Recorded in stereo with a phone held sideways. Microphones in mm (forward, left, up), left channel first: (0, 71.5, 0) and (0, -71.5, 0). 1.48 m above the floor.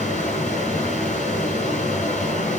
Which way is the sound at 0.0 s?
55° left (ahead or behind).